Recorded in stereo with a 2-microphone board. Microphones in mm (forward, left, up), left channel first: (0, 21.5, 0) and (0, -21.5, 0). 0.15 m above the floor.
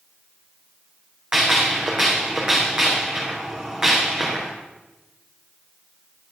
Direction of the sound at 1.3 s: 20° right (ahead or behind).